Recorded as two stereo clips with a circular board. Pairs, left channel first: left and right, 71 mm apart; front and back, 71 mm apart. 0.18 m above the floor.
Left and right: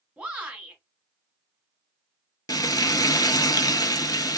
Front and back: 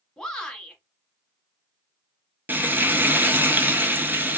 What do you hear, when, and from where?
0.2 s a shout: 60° right, 1.1 m
2.5 s frying: 115° left, 0.5 m